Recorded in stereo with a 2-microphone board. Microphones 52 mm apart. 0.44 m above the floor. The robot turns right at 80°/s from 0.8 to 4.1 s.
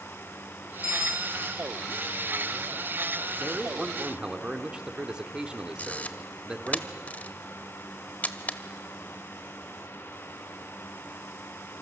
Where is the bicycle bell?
95° left, 2 m; by 1.6 s 155° left, 2 m.